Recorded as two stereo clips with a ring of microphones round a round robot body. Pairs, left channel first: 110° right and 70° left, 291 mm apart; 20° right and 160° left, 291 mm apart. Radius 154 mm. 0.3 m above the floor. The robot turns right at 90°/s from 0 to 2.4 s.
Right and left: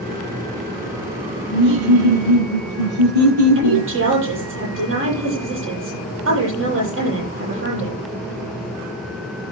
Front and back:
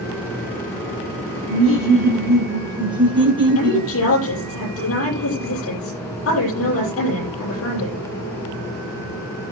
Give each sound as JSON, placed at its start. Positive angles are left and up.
{"t": 1.5, "sound": "laughter", "azimuth_deg": 0, "distance_m": 5.0}
{"t": 3.5, "sound": "a woman speaking", "azimuth_deg": 20, "distance_m": 9.5}